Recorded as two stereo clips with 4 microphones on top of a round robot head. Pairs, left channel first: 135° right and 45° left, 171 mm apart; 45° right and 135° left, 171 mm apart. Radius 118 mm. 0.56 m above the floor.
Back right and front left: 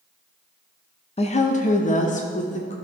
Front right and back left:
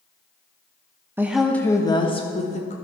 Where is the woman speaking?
160° right, 0.7 m; by 2.8 s 90° right, 1.3 m.